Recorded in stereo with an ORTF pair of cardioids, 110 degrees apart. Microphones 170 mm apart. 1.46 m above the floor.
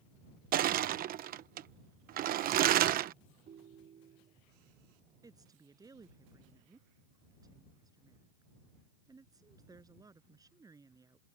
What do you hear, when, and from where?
0.5 s crushing: 60° right
3.5 s a ringtone: 50° right
5.2 s a woman speaking: 20° right